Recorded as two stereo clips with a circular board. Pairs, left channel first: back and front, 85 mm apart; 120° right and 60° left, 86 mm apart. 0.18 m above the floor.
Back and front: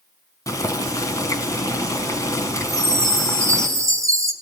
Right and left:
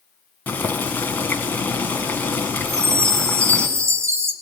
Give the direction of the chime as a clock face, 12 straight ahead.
11 o'clock.